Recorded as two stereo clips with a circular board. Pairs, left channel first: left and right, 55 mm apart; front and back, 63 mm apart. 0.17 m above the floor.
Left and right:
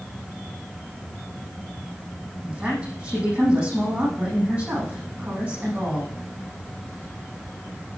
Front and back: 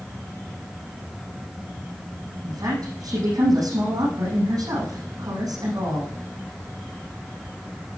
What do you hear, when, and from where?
2.4 s a woman speaking: 150° right, 8 m